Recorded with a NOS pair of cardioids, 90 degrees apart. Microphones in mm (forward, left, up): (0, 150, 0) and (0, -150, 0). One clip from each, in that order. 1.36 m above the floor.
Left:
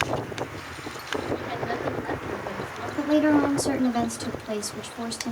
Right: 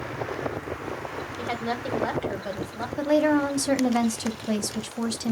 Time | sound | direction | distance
1.4 | a woman speaking | 60° right | 1.3 m
3.0 | a woman speaking | 20° right | 1.1 m